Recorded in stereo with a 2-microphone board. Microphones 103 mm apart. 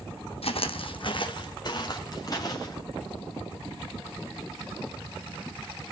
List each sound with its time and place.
0.4 s footsteps: 70° left (ahead or behind), 1.1 m; by 2.8 s 35° left (ahead or behind), 3 m